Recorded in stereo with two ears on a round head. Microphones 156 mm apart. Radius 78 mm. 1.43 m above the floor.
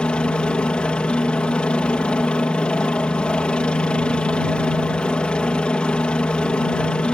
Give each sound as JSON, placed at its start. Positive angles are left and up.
{"t": 0.0, "sound": "a helicopter", "side_deg": 5}